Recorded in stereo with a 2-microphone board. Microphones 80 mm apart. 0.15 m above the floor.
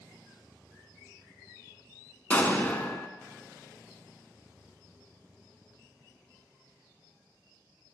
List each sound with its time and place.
2.3 s an explosion: 20° left (ahead or behind), 0.9 m